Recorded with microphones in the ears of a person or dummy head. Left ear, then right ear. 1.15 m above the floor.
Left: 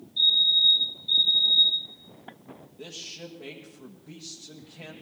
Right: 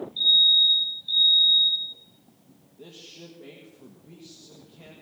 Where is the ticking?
I don't hear ticking.